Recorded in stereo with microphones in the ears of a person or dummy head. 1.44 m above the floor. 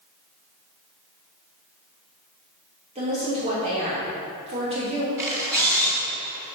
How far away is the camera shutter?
About 1.8 m.